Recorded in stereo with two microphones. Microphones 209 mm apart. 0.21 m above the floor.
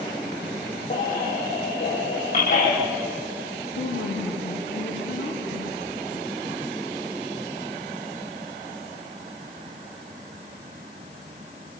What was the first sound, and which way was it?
A baby crying, 40° left (ahead or behind).